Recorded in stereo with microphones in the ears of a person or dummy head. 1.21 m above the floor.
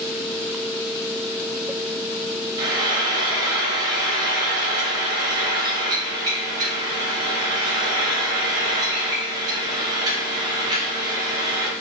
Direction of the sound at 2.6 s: 20° right (ahead or behind).